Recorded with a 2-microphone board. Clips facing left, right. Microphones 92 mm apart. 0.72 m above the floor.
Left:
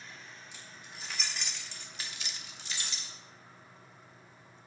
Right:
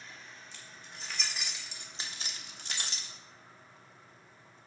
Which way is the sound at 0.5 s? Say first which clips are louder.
Left 1 dB; 15° left (ahead or behind).